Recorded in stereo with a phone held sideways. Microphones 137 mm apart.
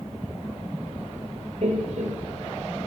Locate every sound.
1.6 s laughter: 60° right (ahead or behind), 1.8 m